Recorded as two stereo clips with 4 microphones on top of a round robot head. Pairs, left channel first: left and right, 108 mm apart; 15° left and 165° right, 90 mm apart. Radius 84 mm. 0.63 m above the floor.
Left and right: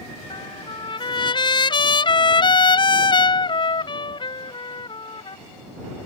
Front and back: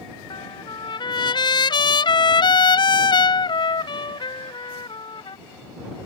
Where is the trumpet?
45° left.